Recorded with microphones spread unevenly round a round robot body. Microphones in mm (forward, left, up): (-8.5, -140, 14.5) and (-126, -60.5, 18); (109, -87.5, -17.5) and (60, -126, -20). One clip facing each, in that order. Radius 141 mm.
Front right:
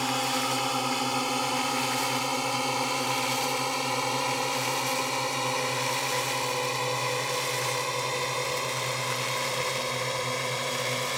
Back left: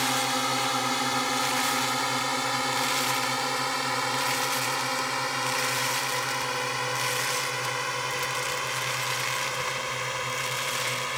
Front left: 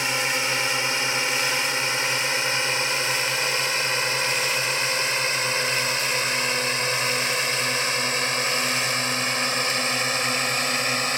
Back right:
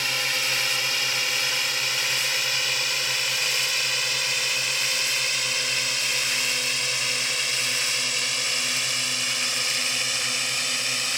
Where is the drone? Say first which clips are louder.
Even, front left 3 dB; 40° left; by 11.2 s 20° left.